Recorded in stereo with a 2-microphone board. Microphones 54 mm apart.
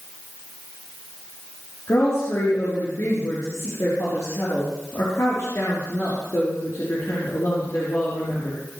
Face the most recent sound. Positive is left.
turn(degrees=65)  # may be behind; listen again after turning